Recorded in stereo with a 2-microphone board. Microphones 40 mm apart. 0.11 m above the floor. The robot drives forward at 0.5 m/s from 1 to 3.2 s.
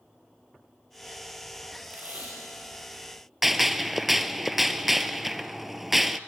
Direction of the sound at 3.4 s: 5° right (ahead or behind).